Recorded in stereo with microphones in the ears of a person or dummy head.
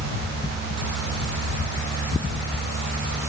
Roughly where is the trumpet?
No trumpet in this recording.